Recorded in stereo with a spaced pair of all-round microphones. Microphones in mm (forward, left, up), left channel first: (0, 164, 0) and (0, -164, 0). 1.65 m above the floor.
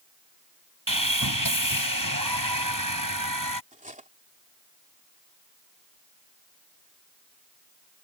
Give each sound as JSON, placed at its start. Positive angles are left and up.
{"t": 0.9, "sound": "sawing", "side_deg": -80}
{"t": 3.7, "sound": "cutlery clinking", "side_deg": -25}